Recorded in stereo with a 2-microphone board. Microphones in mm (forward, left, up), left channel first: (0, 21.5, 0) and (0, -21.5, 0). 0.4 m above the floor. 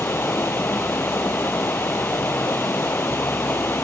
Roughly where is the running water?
Left.